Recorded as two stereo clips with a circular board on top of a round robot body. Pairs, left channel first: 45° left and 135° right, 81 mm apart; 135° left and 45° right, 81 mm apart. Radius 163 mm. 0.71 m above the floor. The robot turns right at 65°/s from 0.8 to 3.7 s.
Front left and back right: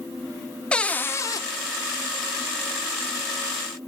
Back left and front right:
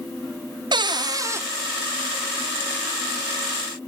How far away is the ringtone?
I don't hear a ringtone.